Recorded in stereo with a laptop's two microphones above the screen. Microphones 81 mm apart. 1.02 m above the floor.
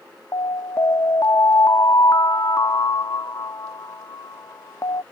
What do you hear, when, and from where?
0.3 s an alarm: 45° left (ahead or behind)